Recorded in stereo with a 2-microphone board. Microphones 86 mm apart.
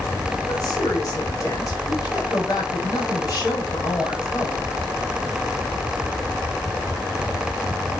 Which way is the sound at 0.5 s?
45° left (ahead or behind).